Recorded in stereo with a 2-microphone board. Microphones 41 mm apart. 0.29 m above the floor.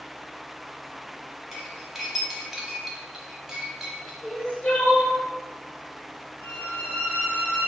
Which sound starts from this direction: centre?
Cutlery clinking, at 1.5 s.